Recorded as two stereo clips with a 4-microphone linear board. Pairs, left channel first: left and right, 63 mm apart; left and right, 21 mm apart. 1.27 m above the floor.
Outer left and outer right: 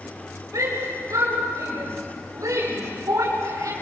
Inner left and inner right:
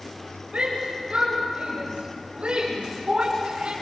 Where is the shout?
70° right (ahead or behind), 6.5 m; by 3.7 s 75° right (ahead or behind), 4.5 m.